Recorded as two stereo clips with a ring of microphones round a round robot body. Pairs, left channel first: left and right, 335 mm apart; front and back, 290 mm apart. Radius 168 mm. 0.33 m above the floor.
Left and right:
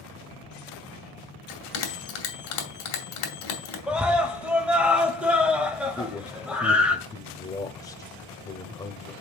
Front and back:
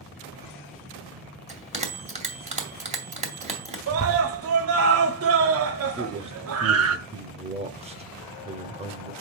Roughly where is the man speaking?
Behind left.